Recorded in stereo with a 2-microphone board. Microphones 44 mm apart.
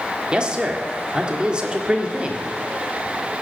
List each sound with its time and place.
0.3 s a man speaking: 20° right (ahead or behind), 1.5 m